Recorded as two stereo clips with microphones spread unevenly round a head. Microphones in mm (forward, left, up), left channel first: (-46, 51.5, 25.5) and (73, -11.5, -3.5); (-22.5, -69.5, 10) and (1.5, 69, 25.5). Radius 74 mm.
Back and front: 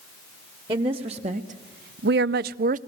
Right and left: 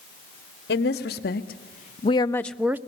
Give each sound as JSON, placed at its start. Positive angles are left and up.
{"t": 0.7, "sound": "a woman speaking", "azimuth_deg": -85, "distance_m": 1.3}